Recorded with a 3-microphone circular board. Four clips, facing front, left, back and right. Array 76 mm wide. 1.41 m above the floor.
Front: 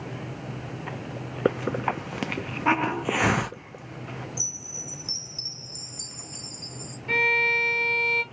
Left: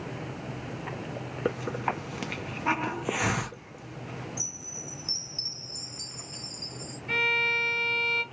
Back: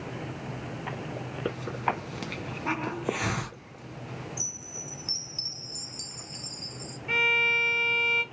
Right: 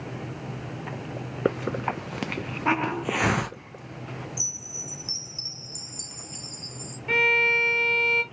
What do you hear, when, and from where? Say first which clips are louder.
1.4 s a hiss: right 4 dB, front 6 dB; 35° right, 0.6 m
4.4 s a chime: right 1 dB, front 1 dB; 170° right, 1.3 m
7.1 s a violin: right 5 dB, front 3 dB; 80° right, 1.9 m